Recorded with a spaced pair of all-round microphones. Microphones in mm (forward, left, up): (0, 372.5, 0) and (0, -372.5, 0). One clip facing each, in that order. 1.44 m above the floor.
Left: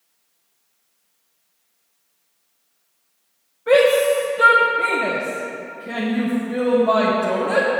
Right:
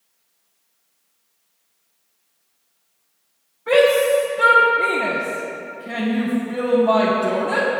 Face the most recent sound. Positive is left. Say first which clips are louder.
# even
turn(degrees=5)  # may be behind; listen again after turning